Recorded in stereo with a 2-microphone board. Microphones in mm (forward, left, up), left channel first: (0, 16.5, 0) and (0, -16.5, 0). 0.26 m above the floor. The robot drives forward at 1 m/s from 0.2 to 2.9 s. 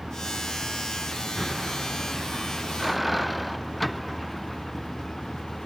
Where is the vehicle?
10° right (ahead or behind); by 5.7 s 5° left (ahead or behind).